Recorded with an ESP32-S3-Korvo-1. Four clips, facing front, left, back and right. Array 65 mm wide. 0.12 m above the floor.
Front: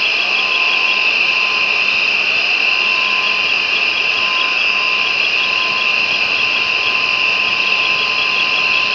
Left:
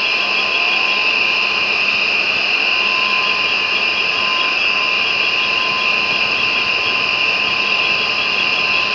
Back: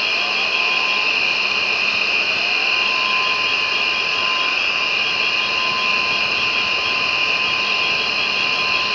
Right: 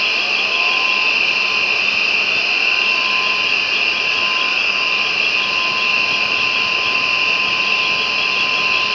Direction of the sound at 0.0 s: 10° right.